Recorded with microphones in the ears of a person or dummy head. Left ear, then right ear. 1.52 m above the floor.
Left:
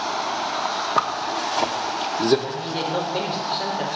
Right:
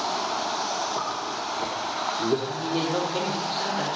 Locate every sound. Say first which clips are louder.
1.0 s a zipper: left 6 dB; 60° left (ahead or behind), 1.0 m
2.5 s a woman speaking: left 1 dB; 20° right (ahead or behind), 3.5 m